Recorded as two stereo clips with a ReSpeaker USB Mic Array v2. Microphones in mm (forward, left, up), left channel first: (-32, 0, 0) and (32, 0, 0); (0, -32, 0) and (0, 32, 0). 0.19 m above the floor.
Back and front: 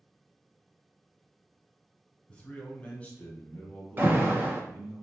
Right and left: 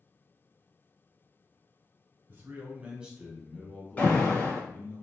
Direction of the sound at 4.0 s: 40° right.